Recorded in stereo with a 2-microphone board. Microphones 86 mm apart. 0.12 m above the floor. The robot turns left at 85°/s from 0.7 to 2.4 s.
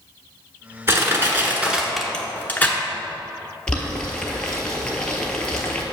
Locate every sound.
0.9 s crushing: 30° right (ahead or behind), 1.0 m; by 2.8 s 20° left (ahead or behind), 1.0 m
3.7 s boiling: 10° left (ahead or behind), 1.1 m